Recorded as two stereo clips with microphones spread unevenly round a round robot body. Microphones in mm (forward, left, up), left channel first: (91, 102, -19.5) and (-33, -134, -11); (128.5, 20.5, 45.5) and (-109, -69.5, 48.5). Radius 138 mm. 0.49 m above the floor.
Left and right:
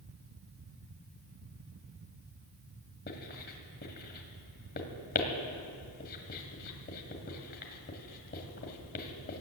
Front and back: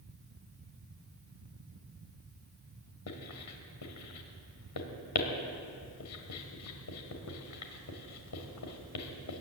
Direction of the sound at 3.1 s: 10° left.